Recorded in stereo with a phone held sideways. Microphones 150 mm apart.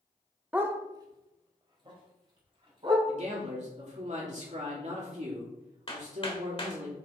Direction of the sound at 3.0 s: 50° right (ahead or behind).